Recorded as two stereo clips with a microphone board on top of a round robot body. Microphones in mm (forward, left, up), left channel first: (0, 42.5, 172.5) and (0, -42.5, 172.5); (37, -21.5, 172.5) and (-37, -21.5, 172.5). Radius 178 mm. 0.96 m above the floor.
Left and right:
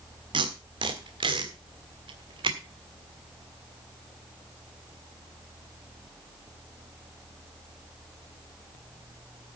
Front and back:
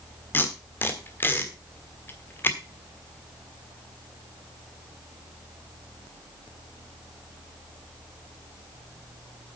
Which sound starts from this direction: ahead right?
Tape being pulled, at 0.3 s.